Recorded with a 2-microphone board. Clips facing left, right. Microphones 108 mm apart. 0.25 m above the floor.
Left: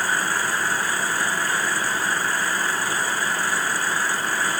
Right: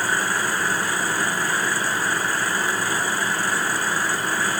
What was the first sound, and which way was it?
Only background noise.